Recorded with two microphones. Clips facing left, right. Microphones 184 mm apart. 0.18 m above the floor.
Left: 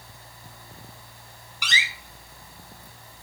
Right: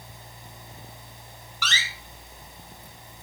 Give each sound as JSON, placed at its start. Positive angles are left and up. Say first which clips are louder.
{"t": 1.6, "sound": "a door slam", "louder": "left 1 dB", "side_deg": 15, "distance_m": 1.0}